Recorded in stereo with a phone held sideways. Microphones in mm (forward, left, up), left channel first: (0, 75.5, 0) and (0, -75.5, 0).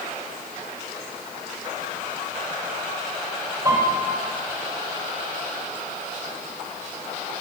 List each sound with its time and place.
3.6 s a piano: 25° right (ahead or behind), 4 m